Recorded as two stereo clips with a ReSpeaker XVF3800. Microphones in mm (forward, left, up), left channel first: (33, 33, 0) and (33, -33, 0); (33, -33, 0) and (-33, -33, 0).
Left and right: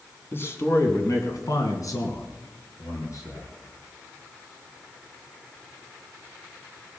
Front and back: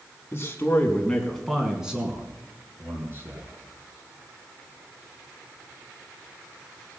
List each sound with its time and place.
0.3 s a man speaking: 40° left, 2.5 m; by 3.5 s 130° left, 4 m